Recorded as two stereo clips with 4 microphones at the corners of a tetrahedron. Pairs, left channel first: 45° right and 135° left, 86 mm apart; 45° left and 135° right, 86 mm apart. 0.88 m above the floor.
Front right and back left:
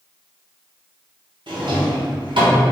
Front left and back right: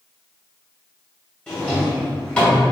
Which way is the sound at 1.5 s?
125° left.